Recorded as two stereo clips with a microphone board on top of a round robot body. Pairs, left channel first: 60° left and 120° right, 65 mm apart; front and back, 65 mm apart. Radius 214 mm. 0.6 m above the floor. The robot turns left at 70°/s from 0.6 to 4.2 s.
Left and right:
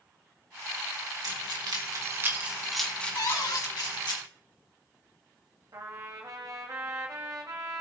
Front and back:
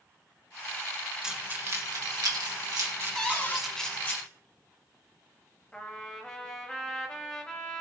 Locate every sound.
1.2 s keys jangling: 100° right, 2.0 m; by 4.2 s 55° left, 2.0 m
3.1 s a cupboard door: 85° left, 1.6 m; by 3.6 s 50° left, 1.6 m
5.7 s a trumpet: 75° right, 0.9 m